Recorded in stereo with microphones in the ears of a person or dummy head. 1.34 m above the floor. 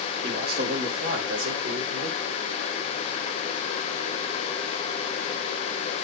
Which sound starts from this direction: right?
A man speaking, at 0.2 s.